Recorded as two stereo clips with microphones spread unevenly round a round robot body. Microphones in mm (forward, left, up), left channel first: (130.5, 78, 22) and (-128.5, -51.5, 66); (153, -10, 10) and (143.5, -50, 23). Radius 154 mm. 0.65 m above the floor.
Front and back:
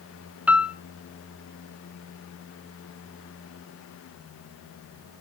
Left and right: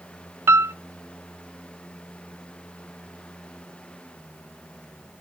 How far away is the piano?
About 0.6 m.